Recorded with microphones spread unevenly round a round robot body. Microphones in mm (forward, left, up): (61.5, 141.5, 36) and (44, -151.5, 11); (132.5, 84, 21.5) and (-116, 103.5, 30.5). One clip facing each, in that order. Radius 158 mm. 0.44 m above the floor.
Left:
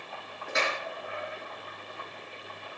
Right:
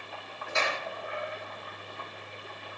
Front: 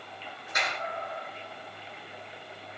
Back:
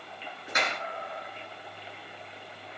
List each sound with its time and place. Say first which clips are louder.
0.5 s a clap: left 1 dB, back 3 dB; 160° left, 6.5 m